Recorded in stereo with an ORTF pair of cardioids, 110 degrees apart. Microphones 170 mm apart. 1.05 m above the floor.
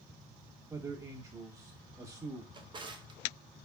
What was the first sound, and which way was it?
A man speaking, 20° right.